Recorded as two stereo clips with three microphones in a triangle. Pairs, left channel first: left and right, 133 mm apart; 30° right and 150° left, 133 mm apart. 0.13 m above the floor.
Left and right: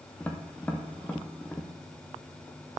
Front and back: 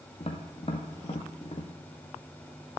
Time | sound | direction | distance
0.2 | tapping | 10° left | 1.4 m